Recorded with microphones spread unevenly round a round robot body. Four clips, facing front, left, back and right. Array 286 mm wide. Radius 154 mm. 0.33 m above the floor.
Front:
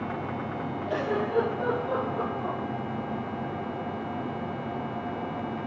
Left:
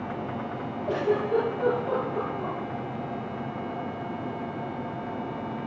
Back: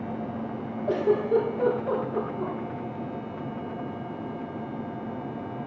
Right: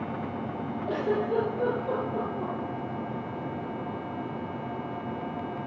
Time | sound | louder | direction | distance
0.9 | a giggle | left 3 dB, back 6 dB | 165° right | 5 m